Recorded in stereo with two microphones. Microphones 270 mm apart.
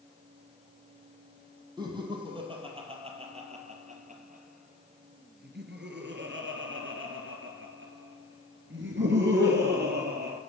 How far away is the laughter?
About 3 m.